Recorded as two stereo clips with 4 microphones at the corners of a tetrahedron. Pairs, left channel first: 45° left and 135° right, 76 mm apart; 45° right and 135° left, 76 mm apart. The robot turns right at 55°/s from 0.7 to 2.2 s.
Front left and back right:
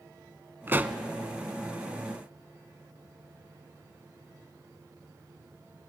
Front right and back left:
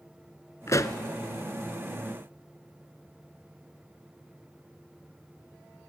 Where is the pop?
80° right, 0.8 m; by 1.0 s 65° right, 0.8 m.